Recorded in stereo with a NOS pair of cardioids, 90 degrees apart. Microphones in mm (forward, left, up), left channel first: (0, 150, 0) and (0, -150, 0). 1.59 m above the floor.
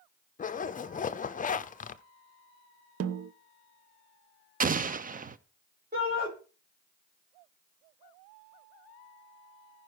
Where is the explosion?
30° right, 0.7 m.